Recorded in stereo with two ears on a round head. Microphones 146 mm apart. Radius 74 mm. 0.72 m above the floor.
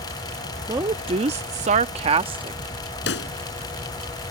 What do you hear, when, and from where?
0.7 s a woman speaking: 20° right (ahead or behind); by 2.6 s 30° right (ahead or behind)
3.1 s a pop: 85° left